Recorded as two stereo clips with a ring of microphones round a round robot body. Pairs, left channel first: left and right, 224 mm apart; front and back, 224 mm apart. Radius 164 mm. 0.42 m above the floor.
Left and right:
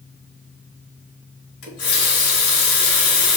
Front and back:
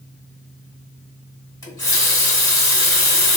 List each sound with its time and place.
1.6 s a running tap: 75° left, 1.6 m